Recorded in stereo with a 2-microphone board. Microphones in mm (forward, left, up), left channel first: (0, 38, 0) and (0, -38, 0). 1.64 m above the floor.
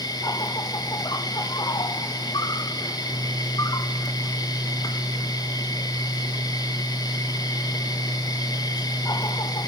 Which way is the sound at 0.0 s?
60° left (ahead or behind).